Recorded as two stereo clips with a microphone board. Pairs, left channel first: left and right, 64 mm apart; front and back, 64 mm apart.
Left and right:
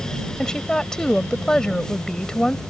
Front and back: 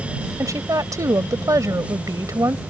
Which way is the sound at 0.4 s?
165° left.